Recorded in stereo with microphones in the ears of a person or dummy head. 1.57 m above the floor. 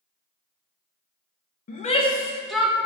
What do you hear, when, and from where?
1.7 s a shout: 50° left (ahead or behind), 1.1 m; by 2.9 s 15° right (ahead or behind), 1.4 m